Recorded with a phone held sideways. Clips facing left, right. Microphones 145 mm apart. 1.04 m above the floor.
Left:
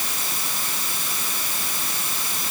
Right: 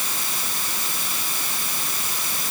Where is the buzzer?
No buzzer in this recording.